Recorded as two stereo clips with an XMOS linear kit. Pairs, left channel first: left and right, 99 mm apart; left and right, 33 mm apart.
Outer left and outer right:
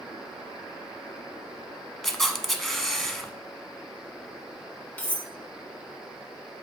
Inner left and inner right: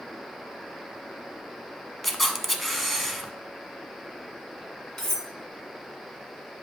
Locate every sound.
2.0 s a camera shutter: centre (ahead or behind), 0.6 m
5.0 s cutlery clinking: 20° left (ahead or behind), 1.2 m